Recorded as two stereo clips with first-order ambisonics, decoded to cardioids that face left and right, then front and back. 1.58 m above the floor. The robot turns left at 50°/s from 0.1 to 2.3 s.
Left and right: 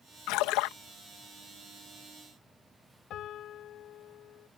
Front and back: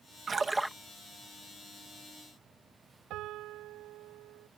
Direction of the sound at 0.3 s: 115° left.